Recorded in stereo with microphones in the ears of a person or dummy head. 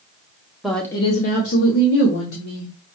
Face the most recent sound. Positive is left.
turn(degrees=80)